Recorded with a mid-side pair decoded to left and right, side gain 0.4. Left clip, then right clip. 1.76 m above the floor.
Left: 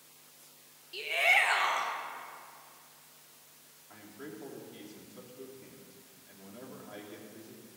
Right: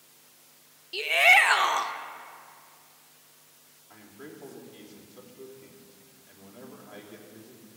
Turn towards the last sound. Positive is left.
turn(degrees=10)